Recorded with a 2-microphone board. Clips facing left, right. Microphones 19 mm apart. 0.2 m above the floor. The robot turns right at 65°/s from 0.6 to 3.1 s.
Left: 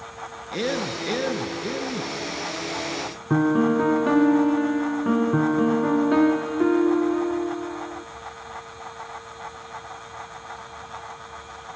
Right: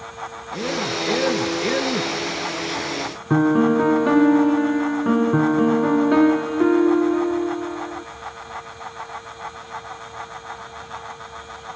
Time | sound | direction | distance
0.5 | a man speaking | 150° left | 2.5 m
3.3 | a piano | 10° right (ahead or behind) | 0.6 m